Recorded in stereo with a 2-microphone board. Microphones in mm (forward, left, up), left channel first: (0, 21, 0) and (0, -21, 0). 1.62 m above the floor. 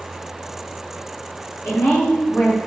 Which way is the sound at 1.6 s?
75° left (ahead or behind).